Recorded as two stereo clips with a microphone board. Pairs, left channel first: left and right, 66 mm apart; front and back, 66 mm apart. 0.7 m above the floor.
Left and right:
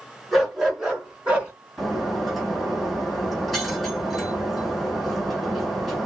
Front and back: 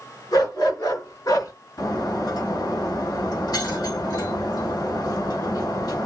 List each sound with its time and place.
0.3 s a dog barking: 5° right, 4 m; by 1.5 s 20° right, 3 m
1.8 s breaking glass: straight ahead, 4 m